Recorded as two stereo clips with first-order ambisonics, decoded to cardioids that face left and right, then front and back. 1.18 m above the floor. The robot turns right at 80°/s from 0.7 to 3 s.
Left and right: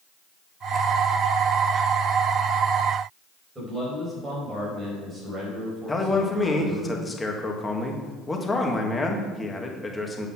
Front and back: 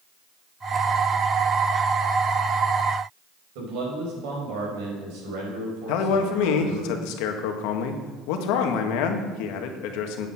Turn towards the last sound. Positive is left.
turn(degrees=10)